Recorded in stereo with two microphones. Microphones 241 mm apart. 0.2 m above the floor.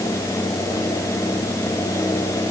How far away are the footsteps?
No footsteps in this recording.